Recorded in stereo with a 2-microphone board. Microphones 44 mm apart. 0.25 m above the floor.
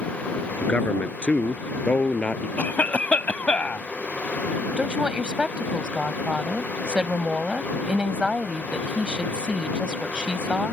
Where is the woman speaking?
20° right (ahead or behind).